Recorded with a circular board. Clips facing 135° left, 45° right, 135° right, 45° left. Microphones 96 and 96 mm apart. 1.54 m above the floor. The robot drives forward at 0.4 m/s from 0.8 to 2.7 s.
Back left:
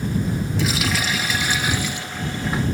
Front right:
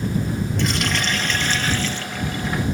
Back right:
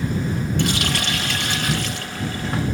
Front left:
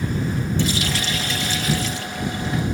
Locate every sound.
0.6 s a running tap: 140° right; by 2.6 s 155° right